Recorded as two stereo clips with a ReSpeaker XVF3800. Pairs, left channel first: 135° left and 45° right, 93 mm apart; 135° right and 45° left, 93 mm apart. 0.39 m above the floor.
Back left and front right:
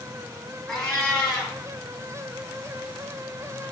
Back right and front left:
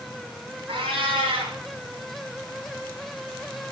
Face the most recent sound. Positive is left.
turn(degrees=50)